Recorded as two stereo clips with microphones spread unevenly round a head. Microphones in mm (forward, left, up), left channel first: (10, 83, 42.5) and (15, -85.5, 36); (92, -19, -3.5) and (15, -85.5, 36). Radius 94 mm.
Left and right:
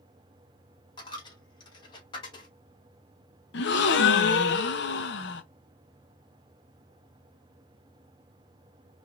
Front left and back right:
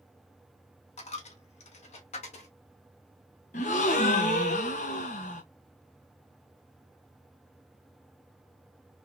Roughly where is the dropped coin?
Ahead left.